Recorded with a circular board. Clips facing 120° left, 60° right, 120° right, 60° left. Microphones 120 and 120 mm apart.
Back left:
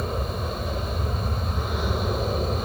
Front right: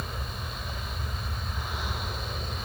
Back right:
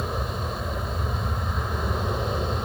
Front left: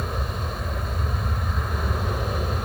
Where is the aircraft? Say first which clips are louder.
Back left 9 dB, back right 1 dB; 160° left; by 2.7 s 155° left.